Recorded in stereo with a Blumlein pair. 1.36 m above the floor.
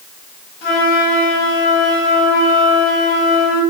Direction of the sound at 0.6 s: 40° left.